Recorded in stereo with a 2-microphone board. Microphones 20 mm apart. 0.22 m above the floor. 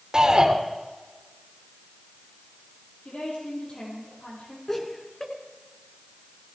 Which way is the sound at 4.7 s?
15° left (ahead or behind).